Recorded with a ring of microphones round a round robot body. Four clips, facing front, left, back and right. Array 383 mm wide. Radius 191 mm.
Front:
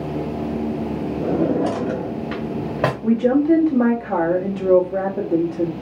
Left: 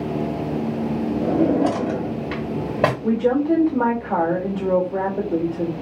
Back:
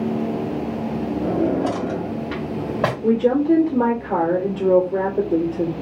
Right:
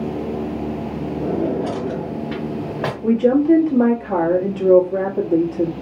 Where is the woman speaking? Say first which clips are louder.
Right 8 dB, front 1 dB; 50° right, 1.3 m.